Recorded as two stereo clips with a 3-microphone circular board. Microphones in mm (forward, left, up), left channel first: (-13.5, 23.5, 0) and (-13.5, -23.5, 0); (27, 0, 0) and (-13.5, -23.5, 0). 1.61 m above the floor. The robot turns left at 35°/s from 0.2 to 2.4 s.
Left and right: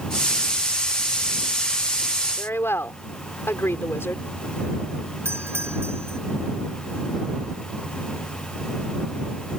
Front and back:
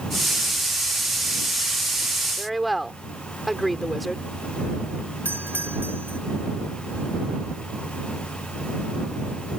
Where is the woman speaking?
120° left.